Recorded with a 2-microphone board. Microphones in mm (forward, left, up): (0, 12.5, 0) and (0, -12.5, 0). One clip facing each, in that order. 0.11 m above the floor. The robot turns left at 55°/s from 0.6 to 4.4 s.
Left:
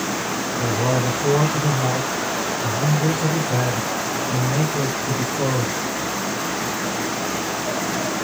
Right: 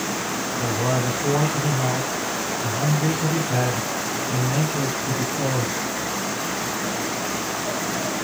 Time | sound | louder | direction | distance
0.6 | a man speaking | left 2 dB | 80° left | 2.5 m